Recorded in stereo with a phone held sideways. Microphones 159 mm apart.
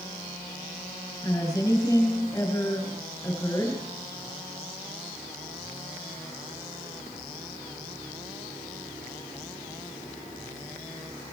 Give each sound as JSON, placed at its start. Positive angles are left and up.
{"t": 1.2, "sound": "a woman speaking", "side_deg": 20, "distance_m": 6.0}